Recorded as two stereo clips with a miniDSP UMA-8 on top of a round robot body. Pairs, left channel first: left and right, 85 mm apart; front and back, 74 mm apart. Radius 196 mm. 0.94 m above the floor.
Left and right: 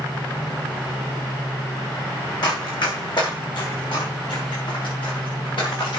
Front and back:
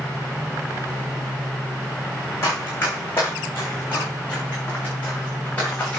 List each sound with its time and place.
2.4 s running footsteps: 60° left, 5 m; by 6.0 s 70° left, 7 m